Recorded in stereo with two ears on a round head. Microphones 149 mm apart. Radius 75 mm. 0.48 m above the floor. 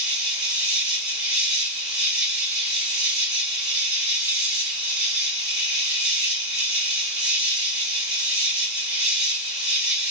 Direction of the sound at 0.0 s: 70° right (ahead or behind).